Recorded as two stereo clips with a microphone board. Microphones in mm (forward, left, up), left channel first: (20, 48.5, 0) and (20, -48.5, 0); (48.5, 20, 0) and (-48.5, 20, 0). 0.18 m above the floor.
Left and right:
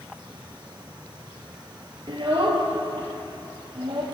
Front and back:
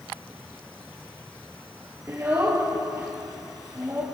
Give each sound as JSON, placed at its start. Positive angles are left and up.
{"t": 2.1, "sound": "a child speaking", "azimuth_deg": -120, "distance_m": 2.5}